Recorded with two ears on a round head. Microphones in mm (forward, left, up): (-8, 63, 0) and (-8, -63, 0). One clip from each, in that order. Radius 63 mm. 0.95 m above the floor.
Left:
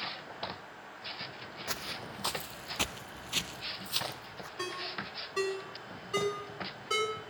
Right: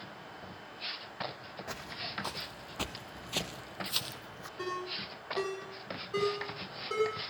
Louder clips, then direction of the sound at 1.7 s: Left 2 dB; 45° left (ahead or behind).